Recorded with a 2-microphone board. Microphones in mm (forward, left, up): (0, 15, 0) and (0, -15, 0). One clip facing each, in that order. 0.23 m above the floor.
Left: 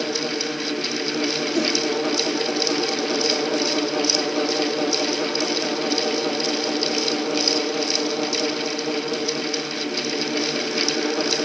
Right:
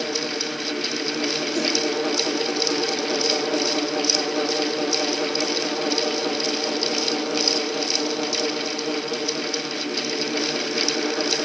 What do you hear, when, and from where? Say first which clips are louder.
1.5 s a whoosh: left 2 dB; 15° left (ahead or behind), 3 m